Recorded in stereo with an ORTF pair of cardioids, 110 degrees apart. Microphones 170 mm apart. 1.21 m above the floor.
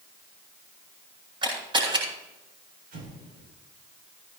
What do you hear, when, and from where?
1.4 s a camera shutter: 30° right, 9 m
2.9 s an explosion: 65° right, 8.5 m